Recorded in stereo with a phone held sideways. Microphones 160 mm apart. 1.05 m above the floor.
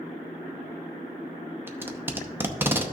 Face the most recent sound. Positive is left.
turn(degrees=-15)  # may be behind; listen again after turning